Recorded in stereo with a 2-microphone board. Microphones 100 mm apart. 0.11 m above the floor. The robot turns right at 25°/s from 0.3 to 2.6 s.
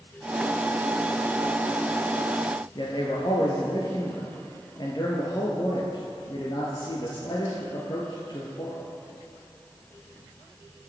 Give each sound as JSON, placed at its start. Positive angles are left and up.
{"t": 2.8, "sound": "a man speaking", "side_deg": 45, "distance_m": 2.5}